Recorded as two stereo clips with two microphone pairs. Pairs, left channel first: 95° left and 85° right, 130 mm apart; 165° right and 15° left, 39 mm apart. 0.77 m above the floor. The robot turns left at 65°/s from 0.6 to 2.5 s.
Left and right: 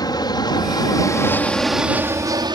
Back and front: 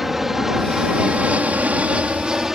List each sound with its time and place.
0.0 s an aircraft: 95° left; by 2.5 s 55° right